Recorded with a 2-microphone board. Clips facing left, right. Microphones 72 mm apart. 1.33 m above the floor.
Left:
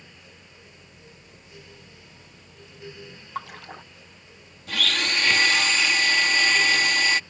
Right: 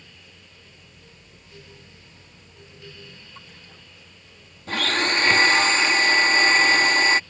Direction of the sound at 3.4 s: 75° left (ahead or behind).